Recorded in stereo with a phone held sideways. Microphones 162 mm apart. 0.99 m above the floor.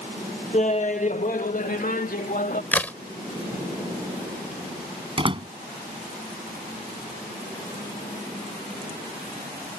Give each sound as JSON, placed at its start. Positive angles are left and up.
{"t": 0.5, "sound": "laughter", "side_deg": 40}
{"t": 2.7, "sound": "a crack", "side_deg": 10}
{"t": 5.2, "sound": "a door slam", "side_deg": -30}